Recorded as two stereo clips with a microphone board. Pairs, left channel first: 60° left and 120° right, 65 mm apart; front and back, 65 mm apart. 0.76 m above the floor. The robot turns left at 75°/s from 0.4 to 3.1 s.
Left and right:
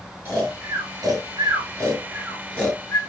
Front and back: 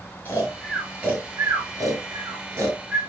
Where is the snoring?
65° right, 7.5 m; by 3.0 s 100° left, 7.5 m.